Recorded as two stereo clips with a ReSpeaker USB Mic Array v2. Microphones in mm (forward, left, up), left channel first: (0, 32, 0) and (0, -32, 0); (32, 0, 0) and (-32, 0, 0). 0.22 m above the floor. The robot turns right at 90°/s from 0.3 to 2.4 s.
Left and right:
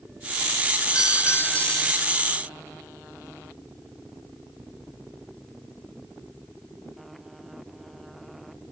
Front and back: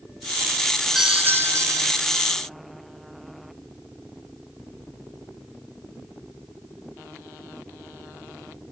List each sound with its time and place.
0.9 s a doorbell: 95° left; by 2.0 s 165° right